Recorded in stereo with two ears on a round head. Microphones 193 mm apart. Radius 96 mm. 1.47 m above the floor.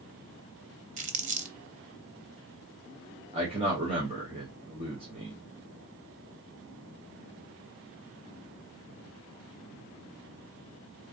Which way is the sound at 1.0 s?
35° right (ahead or behind).